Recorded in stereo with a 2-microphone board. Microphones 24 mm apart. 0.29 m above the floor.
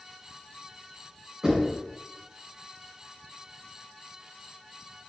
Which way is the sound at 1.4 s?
20° right (ahead or behind).